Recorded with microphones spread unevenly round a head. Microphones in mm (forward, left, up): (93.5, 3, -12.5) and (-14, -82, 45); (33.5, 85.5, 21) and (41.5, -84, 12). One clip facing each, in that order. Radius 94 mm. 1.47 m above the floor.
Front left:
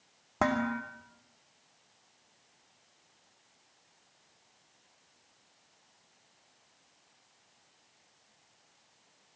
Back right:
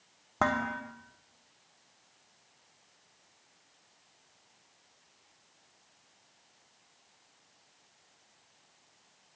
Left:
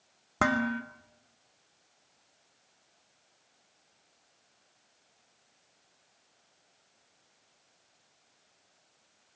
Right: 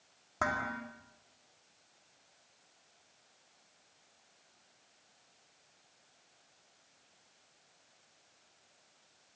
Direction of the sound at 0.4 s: 125° left.